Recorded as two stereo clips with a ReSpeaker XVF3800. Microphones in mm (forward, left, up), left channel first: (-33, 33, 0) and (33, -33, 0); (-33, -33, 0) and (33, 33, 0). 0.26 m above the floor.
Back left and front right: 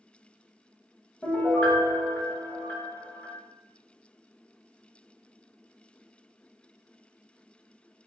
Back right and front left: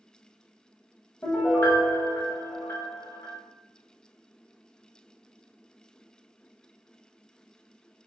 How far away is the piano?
About 1.0 m.